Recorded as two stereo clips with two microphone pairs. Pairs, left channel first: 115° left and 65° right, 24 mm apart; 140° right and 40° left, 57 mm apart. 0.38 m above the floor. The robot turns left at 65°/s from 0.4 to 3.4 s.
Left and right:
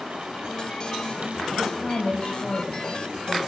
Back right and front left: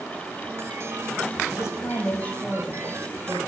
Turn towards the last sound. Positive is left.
turn(degrees=85)